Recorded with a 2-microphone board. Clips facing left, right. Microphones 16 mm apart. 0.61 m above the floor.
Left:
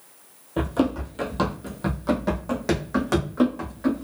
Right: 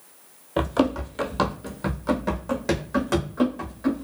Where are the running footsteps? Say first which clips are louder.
Right 1 dB; 35° right (ahead or behind), 0.7 m; by 4.0 s 20° left (ahead or behind), 1.9 m.